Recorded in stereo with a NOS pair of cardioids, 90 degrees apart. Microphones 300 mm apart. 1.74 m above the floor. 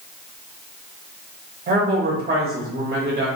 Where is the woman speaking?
30° right, 1.1 m.